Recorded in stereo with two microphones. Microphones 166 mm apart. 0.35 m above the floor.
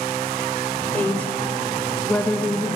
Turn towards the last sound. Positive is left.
turn(degrees=10)  # may be behind; listen again after turning